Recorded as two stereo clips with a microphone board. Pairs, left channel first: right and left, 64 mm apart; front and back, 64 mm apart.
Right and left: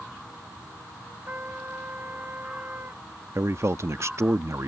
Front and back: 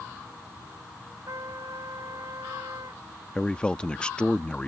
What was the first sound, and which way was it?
A trumpet, 150° left.